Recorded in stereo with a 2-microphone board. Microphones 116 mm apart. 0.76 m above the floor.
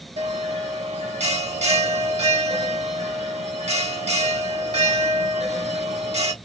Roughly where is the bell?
Right.